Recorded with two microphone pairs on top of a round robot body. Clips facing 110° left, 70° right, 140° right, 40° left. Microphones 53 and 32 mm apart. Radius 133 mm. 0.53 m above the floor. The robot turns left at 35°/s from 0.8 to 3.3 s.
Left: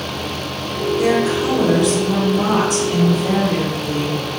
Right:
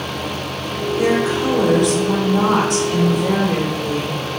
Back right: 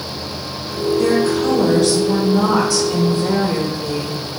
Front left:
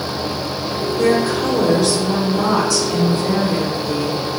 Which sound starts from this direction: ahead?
A woman speaking, at 1.0 s.